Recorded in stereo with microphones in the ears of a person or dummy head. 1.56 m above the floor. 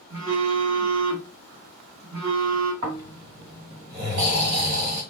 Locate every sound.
0.1 s a phone buzzing: 75° right (ahead or behind), 1.0 m
2.8 s snoring: 45° right (ahead or behind), 1.9 m